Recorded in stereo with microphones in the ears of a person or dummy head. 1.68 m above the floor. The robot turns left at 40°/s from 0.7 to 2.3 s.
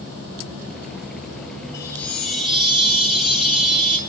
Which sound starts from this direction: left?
A chime, at 1.7 s.